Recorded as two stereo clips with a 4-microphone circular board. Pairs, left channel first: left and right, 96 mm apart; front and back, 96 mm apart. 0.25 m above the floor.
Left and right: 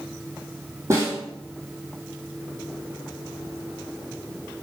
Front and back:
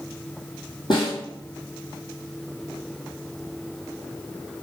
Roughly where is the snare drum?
Ahead right.